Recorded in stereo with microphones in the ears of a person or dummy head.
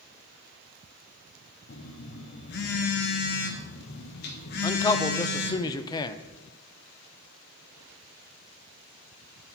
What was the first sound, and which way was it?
A phone buzzing, 50° left (ahead or behind).